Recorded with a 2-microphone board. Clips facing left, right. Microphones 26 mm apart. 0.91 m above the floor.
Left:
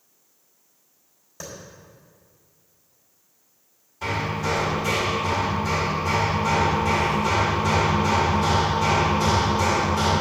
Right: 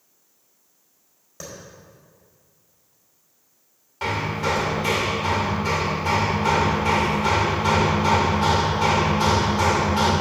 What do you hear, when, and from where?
1.4 s a clap: 5° right (ahead or behind), 4 m
4.0 s hammering: 70° right (ahead or behind), 2 m